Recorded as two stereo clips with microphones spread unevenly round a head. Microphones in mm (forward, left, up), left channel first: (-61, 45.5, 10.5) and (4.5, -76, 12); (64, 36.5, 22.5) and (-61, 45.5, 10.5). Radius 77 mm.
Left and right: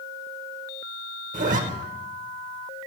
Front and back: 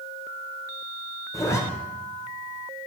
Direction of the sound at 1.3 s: 75° right.